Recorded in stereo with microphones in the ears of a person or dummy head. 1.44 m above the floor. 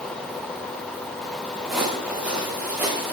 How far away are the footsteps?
About 3.5 m.